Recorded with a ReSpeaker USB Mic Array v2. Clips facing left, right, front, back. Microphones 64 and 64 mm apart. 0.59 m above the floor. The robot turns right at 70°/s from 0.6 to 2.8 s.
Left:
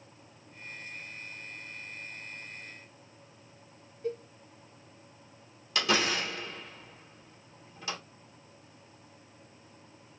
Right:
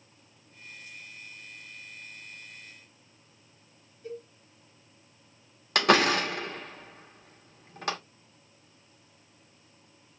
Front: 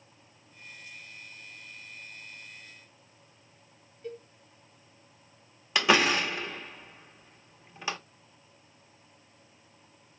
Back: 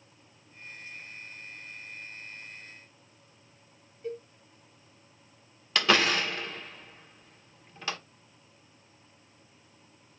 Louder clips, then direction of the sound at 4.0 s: Left 5 dB, back 4 dB; 100° left.